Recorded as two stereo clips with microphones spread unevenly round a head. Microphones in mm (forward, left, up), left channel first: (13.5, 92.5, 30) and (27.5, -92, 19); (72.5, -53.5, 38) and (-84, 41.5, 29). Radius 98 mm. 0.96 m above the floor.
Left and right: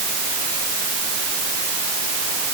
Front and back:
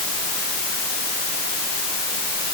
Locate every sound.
Only background noise.